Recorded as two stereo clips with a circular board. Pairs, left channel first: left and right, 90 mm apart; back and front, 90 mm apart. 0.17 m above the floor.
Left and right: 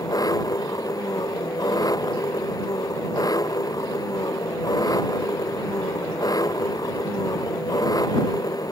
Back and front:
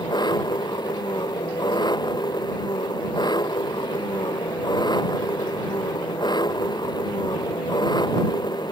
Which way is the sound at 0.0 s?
140° left.